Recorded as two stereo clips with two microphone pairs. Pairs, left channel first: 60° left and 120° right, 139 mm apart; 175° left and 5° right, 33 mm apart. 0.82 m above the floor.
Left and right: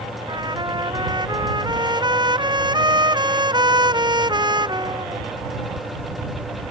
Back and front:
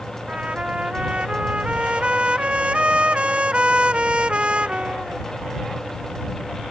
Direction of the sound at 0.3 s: 60° right.